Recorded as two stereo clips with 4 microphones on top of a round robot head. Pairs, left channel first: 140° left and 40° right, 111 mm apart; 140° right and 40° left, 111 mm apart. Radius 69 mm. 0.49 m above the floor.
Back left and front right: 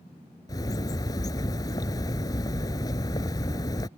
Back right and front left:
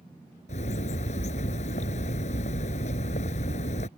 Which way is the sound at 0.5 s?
160° right.